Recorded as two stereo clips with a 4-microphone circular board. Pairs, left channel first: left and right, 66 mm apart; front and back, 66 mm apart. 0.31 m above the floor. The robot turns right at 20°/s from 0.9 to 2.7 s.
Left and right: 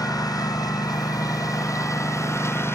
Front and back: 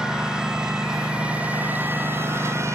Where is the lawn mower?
100° left; by 2.8 s 135° left.